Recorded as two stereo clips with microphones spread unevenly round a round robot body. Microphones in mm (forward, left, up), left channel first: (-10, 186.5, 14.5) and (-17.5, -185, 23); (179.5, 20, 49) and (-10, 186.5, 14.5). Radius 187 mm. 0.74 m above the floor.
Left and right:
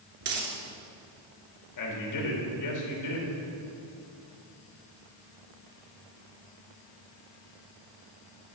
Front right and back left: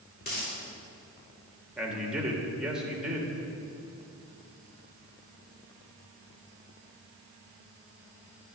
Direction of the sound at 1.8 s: 55° left.